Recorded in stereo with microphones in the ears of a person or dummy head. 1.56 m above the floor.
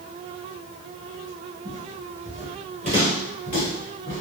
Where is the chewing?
No chewing in this recording.